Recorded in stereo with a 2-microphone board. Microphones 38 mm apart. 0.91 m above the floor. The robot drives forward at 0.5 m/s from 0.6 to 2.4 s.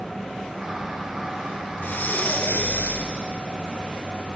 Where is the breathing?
60° left (ahead or behind), 0.9 m; by 3.1 s 50° left (ahead or behind), 1.0 m.